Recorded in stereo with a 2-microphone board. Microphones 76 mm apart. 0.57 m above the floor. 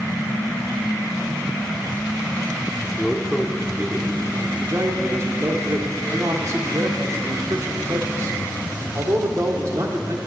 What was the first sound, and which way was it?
A man speaking, 10° left (ahead or behind).